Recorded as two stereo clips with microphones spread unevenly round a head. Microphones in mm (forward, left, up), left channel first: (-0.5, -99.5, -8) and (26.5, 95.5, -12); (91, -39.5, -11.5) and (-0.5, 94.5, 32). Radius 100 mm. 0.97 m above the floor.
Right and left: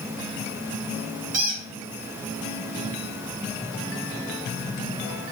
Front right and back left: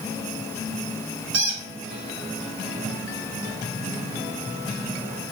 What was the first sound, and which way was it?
A squeak, 135° left.